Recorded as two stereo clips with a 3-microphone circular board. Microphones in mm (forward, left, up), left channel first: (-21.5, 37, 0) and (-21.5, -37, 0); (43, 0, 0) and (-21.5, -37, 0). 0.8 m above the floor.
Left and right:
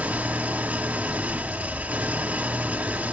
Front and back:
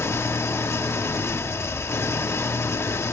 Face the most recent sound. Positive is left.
turn(degrees=-20)